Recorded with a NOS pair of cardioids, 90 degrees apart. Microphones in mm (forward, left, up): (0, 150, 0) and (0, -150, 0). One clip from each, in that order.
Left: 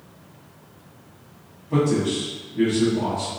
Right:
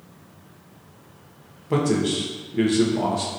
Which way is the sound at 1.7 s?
60° right.